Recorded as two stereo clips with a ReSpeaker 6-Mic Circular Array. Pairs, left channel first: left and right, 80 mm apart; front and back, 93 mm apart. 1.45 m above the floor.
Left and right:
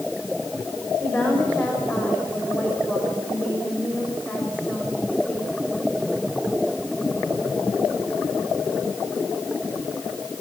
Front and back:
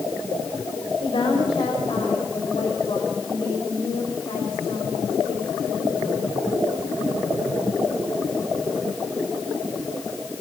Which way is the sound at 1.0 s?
20° left.